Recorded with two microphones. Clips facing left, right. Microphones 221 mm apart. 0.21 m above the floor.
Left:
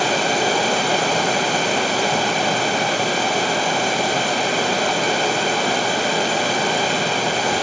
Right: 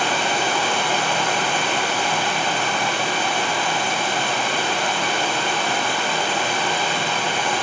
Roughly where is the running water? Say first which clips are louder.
Left 4 dB; left.